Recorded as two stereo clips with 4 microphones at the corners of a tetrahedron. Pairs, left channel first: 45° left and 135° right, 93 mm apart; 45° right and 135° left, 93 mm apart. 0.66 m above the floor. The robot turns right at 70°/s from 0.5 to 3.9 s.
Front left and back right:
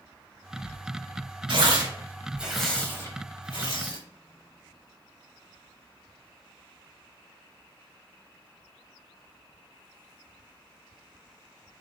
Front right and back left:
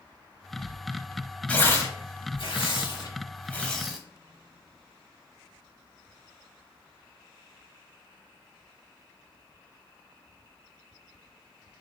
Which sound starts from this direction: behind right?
Tearing paper, at 1.5 s.